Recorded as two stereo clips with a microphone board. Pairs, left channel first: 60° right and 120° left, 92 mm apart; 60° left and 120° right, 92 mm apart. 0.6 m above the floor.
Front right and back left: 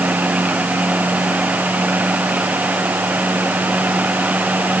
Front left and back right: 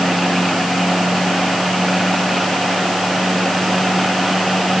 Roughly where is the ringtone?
No ringtone in this recording.